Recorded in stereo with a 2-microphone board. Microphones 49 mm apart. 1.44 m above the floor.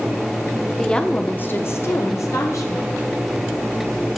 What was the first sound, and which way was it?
A woman speaking, 5° left (ahead or behind).